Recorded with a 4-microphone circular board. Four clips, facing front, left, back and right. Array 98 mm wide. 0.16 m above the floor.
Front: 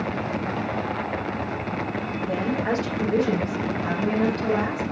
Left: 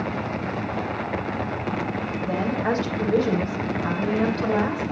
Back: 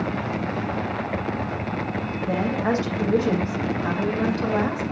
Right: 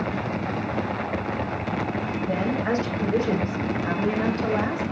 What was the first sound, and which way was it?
A woman speaking, 150° left.